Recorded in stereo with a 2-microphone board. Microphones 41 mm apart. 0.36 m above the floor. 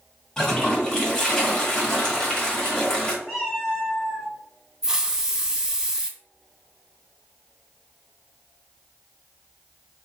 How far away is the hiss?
About 0.6 m.